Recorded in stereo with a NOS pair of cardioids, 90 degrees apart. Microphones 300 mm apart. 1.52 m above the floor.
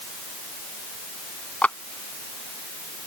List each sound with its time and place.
1.6 s a clap: 5° left